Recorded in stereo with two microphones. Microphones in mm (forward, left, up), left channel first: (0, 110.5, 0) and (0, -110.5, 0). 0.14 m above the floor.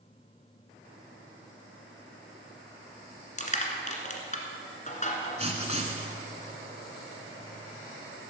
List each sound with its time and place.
3.4 s crushing: 35° left (ahead or behind), 1.6 m
5.4 s writing: 25° right (ahead or behind), 1.3 m